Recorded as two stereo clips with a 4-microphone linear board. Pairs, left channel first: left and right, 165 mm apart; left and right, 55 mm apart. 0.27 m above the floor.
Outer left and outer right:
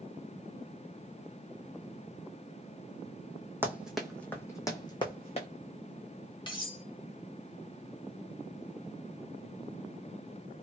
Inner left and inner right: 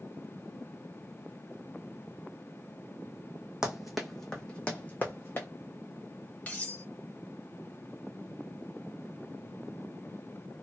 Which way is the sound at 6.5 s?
30° left (ahead or behind).